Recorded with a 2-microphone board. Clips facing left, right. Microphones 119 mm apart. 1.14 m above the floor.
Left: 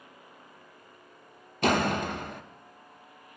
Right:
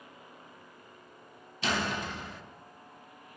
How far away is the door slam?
About 0.5 m.